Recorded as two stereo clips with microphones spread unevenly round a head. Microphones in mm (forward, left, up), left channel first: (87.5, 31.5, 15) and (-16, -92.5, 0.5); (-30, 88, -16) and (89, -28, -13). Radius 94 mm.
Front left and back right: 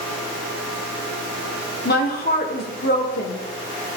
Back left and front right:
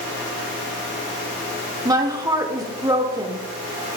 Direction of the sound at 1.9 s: 25° left.